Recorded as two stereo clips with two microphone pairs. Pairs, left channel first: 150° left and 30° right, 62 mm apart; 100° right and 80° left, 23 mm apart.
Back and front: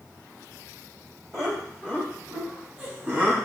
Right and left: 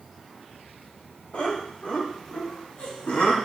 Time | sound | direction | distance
1.3 | laughter | 110° right | 2.5 m